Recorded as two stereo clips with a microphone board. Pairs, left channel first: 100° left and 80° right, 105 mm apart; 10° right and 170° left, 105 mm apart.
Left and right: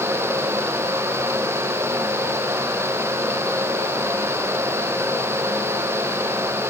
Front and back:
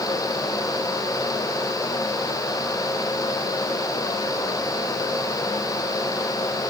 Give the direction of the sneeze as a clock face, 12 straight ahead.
No sneeze in this recording.